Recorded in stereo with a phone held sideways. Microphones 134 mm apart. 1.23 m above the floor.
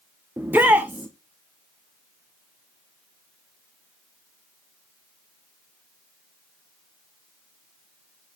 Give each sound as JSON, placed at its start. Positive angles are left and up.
{"t": 0.4, "sound": "a shout", "side_deg": -10, "distance_m": 0.7}